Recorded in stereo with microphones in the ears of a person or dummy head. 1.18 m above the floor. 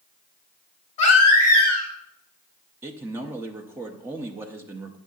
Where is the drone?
No drone in this recording.